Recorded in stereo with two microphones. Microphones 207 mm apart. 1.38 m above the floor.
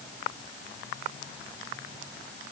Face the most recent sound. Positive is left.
No sound to turn to.